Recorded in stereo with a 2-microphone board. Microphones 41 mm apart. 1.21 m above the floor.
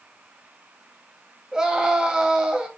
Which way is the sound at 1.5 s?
15° right (ahead or behind).